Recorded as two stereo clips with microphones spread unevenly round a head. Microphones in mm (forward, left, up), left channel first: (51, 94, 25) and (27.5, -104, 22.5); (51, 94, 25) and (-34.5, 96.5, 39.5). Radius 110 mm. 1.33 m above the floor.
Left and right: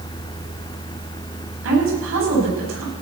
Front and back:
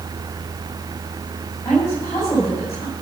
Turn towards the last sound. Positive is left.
turn(degrees=-80)